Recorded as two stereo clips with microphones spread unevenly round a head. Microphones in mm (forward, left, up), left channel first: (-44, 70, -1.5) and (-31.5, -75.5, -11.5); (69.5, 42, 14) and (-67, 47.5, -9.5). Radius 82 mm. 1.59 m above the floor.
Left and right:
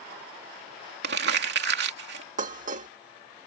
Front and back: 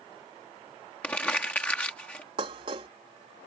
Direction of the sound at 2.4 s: 120° right.